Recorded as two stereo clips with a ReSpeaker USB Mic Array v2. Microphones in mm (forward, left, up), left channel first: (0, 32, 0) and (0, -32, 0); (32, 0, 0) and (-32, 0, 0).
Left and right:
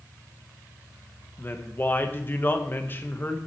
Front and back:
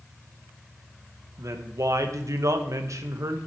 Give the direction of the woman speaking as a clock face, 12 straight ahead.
7 o'clock.